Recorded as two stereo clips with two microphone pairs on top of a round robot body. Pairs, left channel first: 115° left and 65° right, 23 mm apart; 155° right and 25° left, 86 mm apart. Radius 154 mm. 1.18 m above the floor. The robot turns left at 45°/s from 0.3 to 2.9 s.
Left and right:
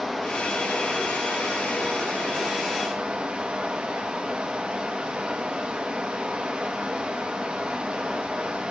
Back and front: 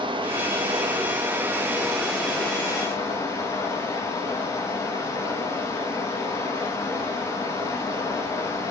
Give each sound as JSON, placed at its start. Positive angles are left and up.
{"t": 0.0, "sound": "running water", "azimuth_deg": 15, "distance_m": 1.5}